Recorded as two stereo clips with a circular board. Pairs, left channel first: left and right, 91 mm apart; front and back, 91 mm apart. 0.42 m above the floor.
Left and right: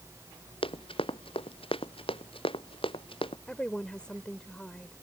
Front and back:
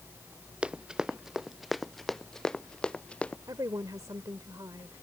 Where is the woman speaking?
165° left.